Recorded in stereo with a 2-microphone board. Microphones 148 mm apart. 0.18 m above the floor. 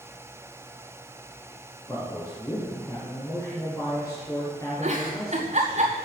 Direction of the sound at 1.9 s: 20° left (ahead or behind).